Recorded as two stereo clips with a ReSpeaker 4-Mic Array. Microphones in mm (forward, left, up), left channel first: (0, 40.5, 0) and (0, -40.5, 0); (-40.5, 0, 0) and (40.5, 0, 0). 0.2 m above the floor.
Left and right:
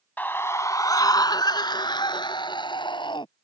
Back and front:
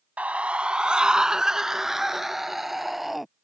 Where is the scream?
50° left; by 3.3 s 90° left.